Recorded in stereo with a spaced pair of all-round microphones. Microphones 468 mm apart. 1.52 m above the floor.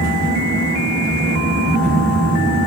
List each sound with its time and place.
0.0 s a fan: 45° right (ahead or behind), 2 m